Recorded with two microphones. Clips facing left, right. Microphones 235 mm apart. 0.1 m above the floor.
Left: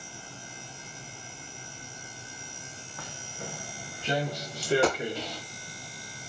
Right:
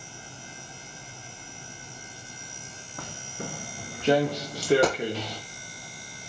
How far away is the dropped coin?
About 1.4 m.